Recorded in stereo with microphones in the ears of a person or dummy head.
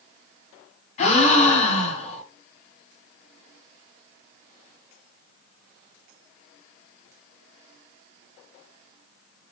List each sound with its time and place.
1.0 s a gasp: 50° left (ahead or behind), 1.5 m